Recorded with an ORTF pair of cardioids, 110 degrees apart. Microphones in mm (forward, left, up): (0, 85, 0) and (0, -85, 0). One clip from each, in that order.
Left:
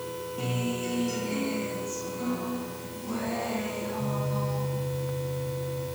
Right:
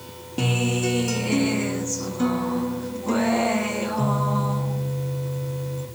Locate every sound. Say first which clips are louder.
0.4 s a guitar: right 9 dB; 65° right, 2 m